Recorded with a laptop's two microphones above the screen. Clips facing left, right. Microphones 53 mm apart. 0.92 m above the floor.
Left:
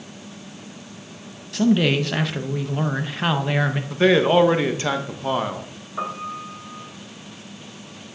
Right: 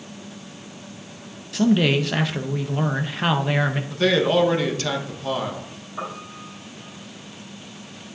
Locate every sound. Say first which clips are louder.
1.5 s a man speaking: even; centre (ahead or behind), 0.5 m
3.9 s a man speaking: left 3 dB; 25° left (ahead or behind), 1.0 m
6.0 s a piano: left 5 dB; 20° left (ahead or behind), 4 m